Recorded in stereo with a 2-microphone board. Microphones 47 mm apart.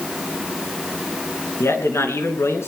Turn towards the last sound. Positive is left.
turn(degrees=70)  # may be behind; listen again after turning